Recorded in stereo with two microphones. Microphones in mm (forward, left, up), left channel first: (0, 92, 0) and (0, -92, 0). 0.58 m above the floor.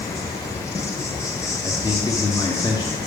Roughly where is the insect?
Centre.